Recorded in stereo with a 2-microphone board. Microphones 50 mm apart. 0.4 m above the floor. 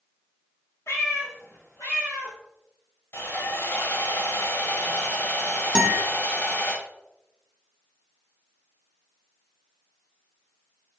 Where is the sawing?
55° left (ahead or behind), 0.9 m.